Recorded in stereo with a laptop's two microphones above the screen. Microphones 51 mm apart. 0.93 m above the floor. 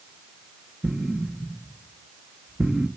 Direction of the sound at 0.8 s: 15° right (ahead or behind).